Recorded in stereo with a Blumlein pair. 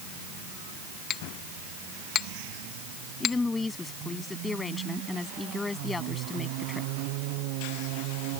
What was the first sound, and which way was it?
A clink, 30° left.